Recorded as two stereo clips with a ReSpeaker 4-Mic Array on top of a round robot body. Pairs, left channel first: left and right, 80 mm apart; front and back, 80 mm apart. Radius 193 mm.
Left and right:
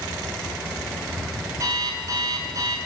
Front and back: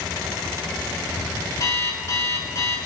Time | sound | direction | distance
1.6 | an alarm clock | 45° right | 6 m